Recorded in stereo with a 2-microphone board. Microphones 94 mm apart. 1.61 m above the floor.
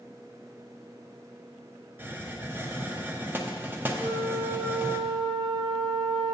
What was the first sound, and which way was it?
A hiss, 20° right (ahead or behind).